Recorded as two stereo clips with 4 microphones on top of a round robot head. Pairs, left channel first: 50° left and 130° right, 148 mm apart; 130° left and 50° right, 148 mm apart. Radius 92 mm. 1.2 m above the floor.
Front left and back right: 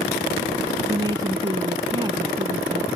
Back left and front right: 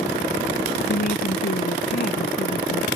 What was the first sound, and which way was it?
A woman speaking, 165° left.